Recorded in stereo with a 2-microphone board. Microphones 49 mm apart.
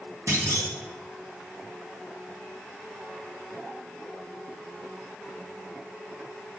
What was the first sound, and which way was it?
A clunk, 75° right (ahead or behind).